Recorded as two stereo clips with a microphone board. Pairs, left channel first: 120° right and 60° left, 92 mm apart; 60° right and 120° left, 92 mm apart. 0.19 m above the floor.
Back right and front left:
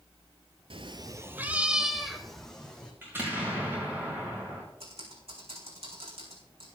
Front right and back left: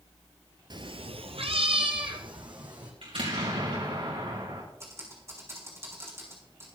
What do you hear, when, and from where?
0.7 s a cat meowing: 80° left, 0.7 m; by 2.9 s 160° left, 2.5 m
3.0 s an explosion: 125° left, 6.5 m
4.8 s typing on a keyboard: 60° left, 4.5 m